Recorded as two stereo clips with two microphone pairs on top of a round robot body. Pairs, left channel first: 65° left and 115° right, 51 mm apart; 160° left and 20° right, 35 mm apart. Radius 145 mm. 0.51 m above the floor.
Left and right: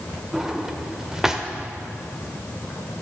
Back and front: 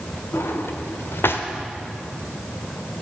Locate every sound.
0.3 s a drawer: 165° left, 1.2 m